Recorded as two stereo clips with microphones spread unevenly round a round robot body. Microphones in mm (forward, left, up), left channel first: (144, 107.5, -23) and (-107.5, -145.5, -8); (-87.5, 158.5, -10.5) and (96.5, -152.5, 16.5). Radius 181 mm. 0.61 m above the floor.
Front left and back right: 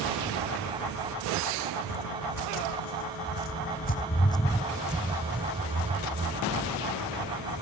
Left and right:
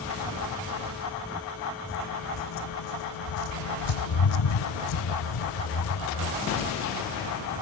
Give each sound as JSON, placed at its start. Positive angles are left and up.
{"t": 1.9, "sound": "footsteps", "azimuth_deg": 65}